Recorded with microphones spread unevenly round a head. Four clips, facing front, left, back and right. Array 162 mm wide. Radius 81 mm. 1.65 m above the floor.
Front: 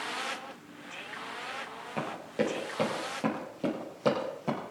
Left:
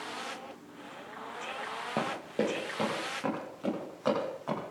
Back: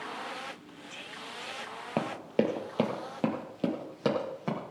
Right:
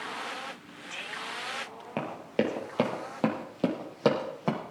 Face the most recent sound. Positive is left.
turn(degrees=-110)